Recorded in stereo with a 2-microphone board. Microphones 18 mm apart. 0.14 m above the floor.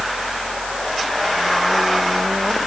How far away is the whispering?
No whispering in this recording.